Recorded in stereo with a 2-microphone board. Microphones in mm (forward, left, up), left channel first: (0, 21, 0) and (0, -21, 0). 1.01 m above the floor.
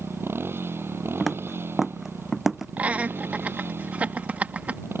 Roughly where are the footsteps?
Centre.